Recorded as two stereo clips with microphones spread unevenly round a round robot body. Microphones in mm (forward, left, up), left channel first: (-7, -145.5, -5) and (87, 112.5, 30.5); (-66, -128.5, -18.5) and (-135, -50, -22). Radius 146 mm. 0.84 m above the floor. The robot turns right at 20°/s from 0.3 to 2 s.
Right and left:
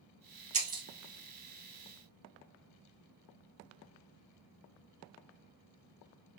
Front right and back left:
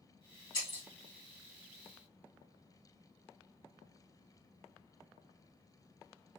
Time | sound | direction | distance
0.5 | breaking glass | 15° left | 1.6 m